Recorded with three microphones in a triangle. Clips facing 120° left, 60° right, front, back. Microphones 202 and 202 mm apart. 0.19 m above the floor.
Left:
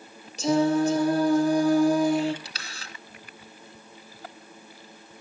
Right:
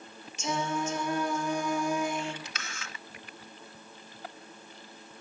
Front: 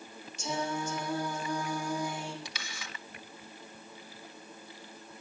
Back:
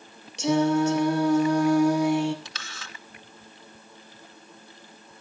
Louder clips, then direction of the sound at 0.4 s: Left 11 dB, back 14 dB; 170° left.